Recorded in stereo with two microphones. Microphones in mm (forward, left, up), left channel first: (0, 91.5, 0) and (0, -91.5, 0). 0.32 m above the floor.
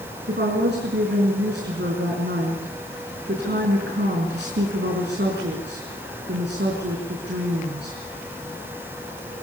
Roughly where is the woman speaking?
Right.